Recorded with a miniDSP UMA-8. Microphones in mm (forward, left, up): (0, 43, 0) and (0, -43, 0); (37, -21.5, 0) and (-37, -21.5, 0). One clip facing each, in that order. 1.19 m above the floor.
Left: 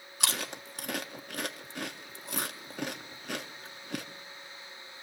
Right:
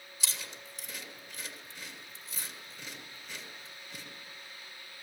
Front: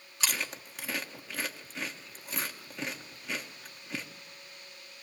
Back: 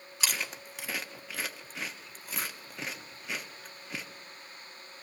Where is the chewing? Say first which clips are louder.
Left 9 dB, even; 95° left, 1.3 m.